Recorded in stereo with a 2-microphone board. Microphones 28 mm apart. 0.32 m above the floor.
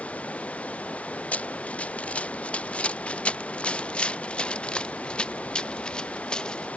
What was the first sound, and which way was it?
Running water, 50° left (ahead or behind).